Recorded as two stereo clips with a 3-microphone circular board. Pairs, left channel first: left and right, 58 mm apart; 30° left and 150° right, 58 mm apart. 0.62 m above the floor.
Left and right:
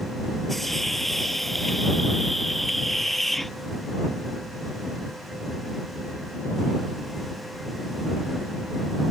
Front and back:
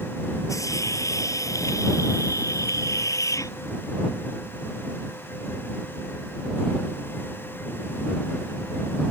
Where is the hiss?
Straight ahead.